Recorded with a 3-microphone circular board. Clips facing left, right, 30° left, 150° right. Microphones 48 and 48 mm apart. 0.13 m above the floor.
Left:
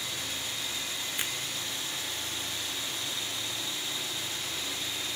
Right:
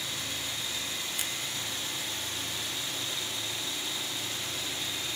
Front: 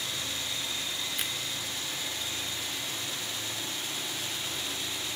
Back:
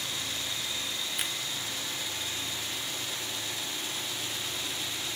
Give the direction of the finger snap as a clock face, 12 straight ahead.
8 o'clock.